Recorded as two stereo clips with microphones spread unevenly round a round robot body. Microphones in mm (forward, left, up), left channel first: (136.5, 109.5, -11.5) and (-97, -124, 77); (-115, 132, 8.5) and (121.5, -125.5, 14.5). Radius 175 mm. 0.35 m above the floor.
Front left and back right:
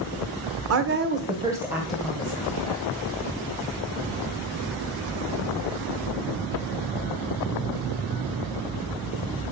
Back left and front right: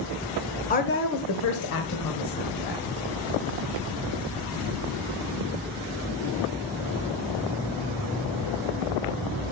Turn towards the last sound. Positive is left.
turn(degrees=110)